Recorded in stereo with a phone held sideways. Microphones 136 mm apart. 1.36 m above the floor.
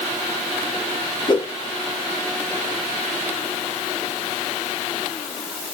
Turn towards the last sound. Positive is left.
turn(degrees=35)  # may be behind; listen again after turning